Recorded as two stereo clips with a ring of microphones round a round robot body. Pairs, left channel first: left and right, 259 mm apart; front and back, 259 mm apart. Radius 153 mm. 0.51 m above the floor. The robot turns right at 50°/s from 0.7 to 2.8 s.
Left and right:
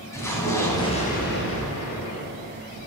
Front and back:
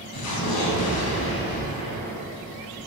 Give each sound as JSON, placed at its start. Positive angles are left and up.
{"t": 0.1, "sound": "an explosion", "azimuth_deg": 10, "distance_m": 3.5}